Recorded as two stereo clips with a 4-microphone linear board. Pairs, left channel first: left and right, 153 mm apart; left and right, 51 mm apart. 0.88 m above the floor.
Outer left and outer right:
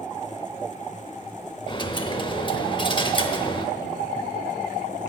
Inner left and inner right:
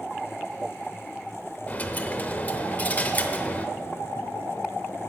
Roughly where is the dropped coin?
Left.